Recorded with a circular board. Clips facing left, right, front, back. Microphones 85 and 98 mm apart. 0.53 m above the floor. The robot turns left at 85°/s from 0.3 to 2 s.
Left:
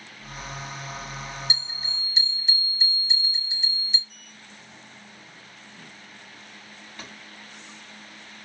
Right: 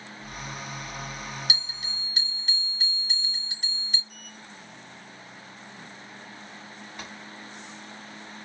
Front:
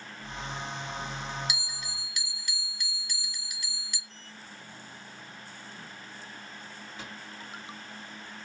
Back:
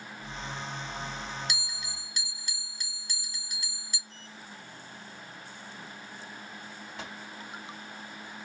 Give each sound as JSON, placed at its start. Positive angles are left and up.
{"t": 1.5, "sound": "a bell", "azimuth_deg": -80, "distance_m": 1.5}
{"t": 4.1, "sound": "a sliding door", "azimuth_deg": -175, "distance_m": 2.5}
{"t": 7.0, "sound": "a microwave", "azimuth_deg": -165, "distance_m": 3.0}